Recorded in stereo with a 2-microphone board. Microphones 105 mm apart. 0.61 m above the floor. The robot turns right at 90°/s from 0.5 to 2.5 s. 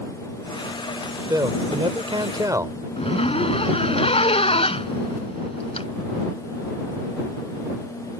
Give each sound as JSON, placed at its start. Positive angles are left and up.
{"t": 1.3, "sound": "a man speaking", "azimuth_deg": -140}
{"t": 3.0, "sound": "a zipper", "side_deg": 75}